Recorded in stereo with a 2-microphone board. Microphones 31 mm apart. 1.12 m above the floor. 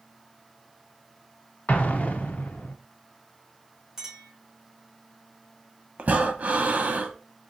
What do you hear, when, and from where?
1.7 s an explosion: 50° left (ahead or behind), 0.6 m
4.0 s a clink: 5° right (ahead or behind), 2 m
6.0 s breathing: 50° right (ahead or behind), 0.7 m